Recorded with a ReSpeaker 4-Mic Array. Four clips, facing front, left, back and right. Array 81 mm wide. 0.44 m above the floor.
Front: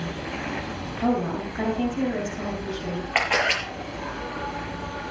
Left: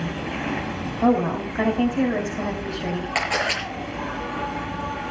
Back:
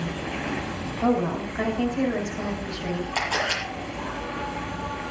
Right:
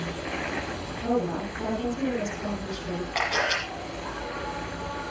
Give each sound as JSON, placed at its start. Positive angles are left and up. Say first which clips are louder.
{"t": 0.0, "sound": "an insect", "louder": "left 4 dB, back 1 dB", "azimuth_deg": 95, "distance_m": 4.5}
{"t": 1.0, "sound": "a woman speaking", "louder": "left 7 dB, back 1 dB", "azimuth_deg": 95, "distance_m": 4.0}
{"t": 3.1, "sound": "a camera shutter", "louder": "left 1 dB, front 6 dB", "azimuth_deg": 15, "distance_m": 6.5}